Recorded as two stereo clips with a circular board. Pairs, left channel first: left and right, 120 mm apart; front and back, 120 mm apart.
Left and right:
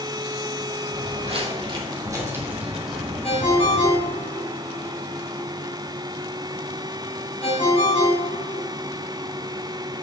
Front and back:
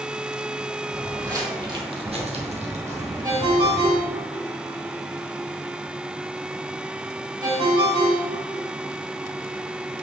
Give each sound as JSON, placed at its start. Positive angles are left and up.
{"t": 0.9, "sound": "footsteps", "azimuth_deg": -110, "distance_m": 2.5}
{"t": 3.2, "sound": "a ringtone", "azimuth_deg": 130, "distance_m": 4.0}